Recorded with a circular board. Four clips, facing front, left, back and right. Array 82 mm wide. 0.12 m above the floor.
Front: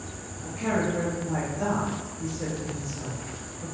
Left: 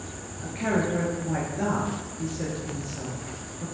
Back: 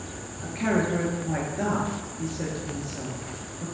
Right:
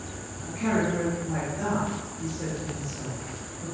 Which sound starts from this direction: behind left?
A woman speaking, at 0.4 s.